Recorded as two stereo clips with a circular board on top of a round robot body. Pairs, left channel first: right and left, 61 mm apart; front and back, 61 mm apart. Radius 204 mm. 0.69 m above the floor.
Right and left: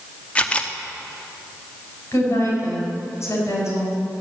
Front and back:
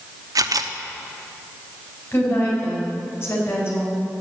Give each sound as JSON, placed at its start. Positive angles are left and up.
{"t": 0.3, "sound": "a camera shutter", "azimuth_deg": -160, "distance_m": 0.8}
{"t": 2.1, "sound": "a woman speaking", "azimuth_deg": -50, "distance_m": 5.5}